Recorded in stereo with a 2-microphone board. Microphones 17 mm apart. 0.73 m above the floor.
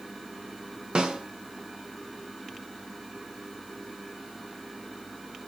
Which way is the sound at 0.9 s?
65° right (ahead or behind).